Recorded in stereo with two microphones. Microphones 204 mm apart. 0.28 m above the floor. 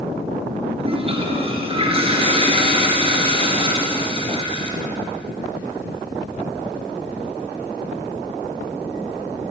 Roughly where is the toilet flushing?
Right.